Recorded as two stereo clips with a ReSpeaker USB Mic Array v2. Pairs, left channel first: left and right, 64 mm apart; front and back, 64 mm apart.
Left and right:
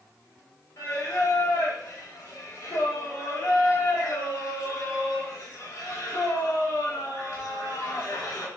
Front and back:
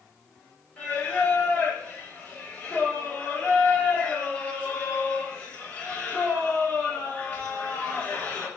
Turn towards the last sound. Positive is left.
turn(degrees=60)